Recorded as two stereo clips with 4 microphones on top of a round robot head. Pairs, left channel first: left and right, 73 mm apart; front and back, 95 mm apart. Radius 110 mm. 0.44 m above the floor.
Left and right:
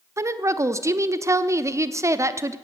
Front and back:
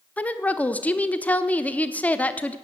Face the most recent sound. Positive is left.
turn(degrees=-65)